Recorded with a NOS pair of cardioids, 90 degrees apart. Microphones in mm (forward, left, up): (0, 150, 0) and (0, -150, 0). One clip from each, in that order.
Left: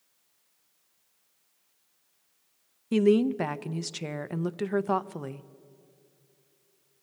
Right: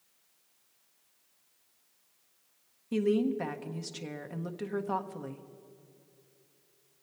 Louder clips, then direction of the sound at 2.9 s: Left 6 dB; 35° left.